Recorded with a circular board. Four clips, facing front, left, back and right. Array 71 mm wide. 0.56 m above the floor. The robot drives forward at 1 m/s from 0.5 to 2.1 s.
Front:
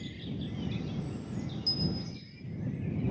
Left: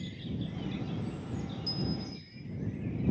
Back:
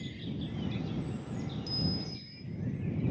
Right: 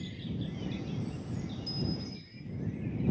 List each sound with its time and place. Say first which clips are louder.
1.7 s a bell: left 1 dB, front 1 dB; 170° right, 0.5 m; by 2.4 s 175° right, 0.9 m